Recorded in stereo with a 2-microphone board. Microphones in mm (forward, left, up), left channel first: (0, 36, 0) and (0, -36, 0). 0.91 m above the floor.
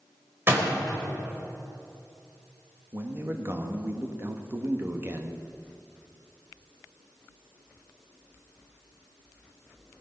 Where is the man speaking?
30° right (ahead or behind), 1.3 m.